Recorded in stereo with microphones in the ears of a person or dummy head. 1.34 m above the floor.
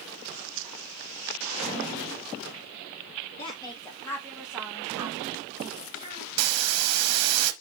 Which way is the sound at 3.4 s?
20° left (ahead or behind).